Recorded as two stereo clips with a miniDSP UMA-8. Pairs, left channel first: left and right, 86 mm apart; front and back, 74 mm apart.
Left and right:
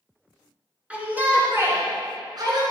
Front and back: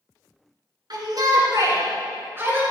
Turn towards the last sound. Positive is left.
turn(degrees=-115)